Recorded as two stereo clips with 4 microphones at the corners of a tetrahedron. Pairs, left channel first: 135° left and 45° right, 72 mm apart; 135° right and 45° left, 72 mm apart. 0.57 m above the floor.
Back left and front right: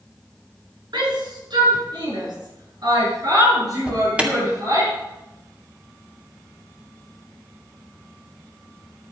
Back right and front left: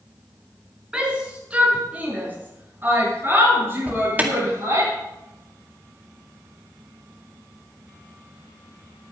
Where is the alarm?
10° left, 2 m.